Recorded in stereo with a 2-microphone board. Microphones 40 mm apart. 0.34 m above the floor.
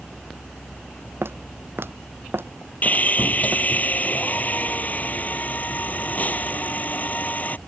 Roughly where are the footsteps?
Right.